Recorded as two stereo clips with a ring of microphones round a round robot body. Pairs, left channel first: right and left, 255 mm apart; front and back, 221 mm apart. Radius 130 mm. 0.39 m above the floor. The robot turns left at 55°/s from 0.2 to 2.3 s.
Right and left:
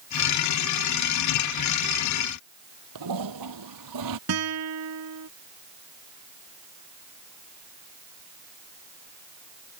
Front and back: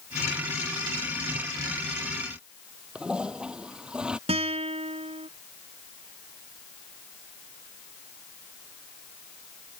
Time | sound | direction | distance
3.0 | a toilet flushing | 95° left | ?
4.3 | a guitar | 115° left | ?